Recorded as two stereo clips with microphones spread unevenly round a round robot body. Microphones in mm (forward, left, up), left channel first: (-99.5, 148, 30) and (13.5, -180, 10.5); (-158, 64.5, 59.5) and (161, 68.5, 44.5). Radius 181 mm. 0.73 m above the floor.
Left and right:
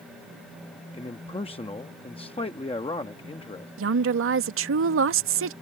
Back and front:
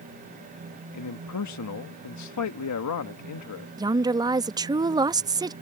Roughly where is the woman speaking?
Ahead right.